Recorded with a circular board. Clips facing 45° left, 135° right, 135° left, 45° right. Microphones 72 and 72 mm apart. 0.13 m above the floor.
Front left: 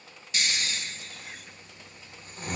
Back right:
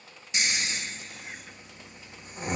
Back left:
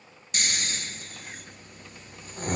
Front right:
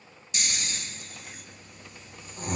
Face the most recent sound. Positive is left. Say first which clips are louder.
# back right 1 dB, back left 3 dB
turn(degrees=160)